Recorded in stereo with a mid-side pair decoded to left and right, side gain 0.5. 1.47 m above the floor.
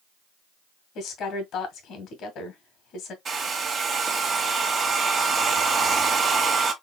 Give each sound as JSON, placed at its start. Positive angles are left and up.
{"t": 0.9, "sound": "a woman speaking", "azimuth_deg": 70, "distance_m": 1.8}
{"t": 3.2, "sound": "a hair dryer", "azimuth_deg": -45, "distance_m": 1.3}